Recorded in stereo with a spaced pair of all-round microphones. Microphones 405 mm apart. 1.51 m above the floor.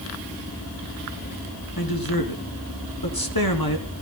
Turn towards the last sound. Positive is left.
turn(degrees=60)  # may be behind; listen again after turning